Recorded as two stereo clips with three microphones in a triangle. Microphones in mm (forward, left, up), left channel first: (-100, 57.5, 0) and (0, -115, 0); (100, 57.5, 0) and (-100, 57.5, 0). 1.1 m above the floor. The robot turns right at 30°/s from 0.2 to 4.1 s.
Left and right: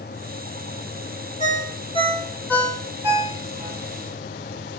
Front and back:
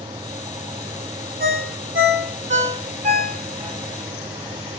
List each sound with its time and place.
1.4 s a ringtone: 170° left, 1.0 m; by 3.8 s 120° right, 1.0 m